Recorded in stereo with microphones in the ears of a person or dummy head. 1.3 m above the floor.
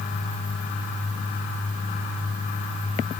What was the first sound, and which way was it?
Only background noise.